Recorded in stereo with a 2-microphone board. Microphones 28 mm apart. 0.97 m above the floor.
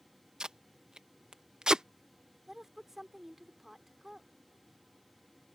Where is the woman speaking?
5° right (ahead or behind).